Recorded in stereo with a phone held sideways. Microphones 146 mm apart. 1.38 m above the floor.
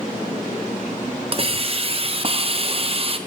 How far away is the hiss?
About 0.6 m.